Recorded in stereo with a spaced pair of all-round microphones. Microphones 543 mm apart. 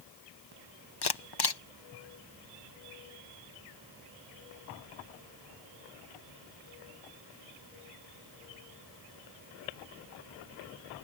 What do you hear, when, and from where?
1.0 s a camera shutter: 45° left (ahead or behind)